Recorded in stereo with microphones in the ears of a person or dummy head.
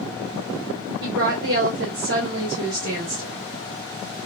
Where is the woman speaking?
55° right (ahead or behind), 1.2 m.